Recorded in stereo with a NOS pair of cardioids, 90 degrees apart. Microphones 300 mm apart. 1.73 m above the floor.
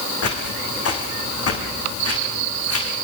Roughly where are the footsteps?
Ahead left.